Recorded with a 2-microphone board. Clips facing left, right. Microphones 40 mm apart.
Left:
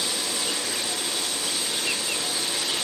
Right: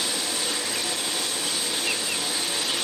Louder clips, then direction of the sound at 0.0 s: Even; 45° right (ahead or behind).